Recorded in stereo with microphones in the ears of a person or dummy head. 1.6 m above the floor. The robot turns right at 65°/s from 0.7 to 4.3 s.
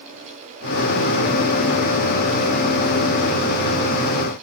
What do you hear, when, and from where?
Only background noise.